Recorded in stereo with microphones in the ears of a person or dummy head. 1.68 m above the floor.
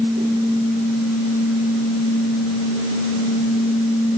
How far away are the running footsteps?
I don't hear running footsteps.